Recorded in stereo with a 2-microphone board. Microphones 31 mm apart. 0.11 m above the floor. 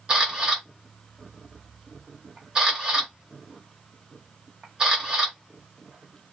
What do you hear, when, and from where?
0.1 s a camera shutter: 20° right (ahead or behind), 1.0 m